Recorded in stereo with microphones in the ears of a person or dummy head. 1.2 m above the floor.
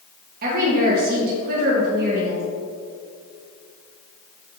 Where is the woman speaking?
45° right (ahead or behind), 1.3 m.